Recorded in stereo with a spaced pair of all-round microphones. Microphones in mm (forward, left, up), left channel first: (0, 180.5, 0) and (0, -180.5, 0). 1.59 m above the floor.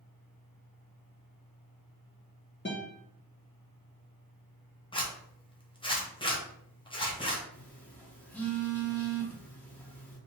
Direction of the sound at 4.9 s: 15° left (ahead or behind).